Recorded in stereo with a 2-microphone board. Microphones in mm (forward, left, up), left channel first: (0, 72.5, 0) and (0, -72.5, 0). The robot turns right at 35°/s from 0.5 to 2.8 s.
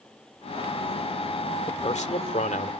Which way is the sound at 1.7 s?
55° left.